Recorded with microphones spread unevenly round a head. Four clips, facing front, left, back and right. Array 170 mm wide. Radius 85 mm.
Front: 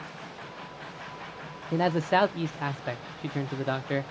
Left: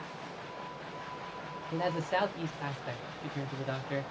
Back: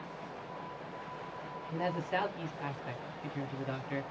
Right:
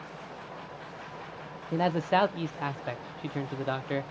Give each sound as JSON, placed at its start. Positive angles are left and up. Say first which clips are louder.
{"t": 1.7, "sound": "a man speaking", "louder": "right 6 dB, front 10 dB", "azimuth_deg": -25, "distance_m": 0.6}